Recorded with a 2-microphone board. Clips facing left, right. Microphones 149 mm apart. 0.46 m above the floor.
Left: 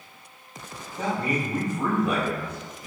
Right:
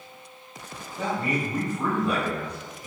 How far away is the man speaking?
About 1.5 m.